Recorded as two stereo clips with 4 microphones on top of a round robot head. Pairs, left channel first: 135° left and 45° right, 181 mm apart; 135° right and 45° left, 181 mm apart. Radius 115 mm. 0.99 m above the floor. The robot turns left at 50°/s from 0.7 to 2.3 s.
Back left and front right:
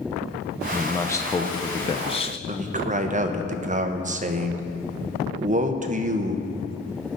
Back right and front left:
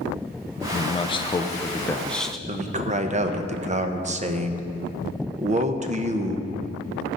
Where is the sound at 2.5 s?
Straight ahead, 1.0 m.